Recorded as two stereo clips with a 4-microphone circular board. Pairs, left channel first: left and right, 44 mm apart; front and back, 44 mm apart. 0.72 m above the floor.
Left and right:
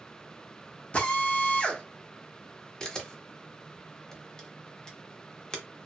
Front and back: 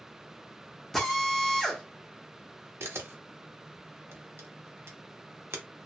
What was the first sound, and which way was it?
A drill, 85° left.